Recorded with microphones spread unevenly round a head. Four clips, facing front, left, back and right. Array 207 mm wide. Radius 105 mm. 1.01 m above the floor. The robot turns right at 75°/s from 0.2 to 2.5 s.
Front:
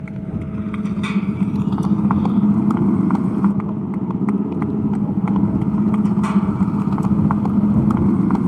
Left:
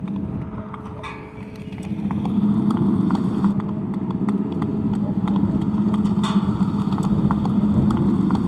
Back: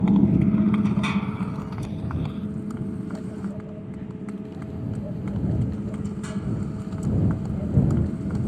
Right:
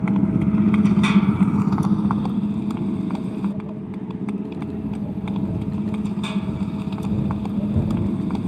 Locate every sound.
0.0 s a motorcycle: 155° right; by 8.5 s 20° left